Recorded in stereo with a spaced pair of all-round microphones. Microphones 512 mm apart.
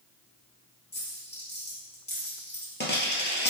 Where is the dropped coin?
20° left (ahead or behind), 2.5 m.